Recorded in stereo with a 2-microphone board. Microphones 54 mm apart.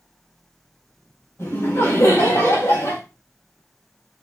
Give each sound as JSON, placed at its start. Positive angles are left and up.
{"t": 1.4, "sound": "laughter", "side_deg": 60, "distance_m": 2.5}